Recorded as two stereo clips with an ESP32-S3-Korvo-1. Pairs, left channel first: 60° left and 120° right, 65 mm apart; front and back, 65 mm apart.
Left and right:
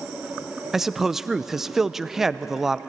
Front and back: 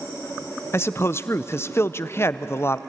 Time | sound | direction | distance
0.7 | a man speaking | 40° right | 0.6 m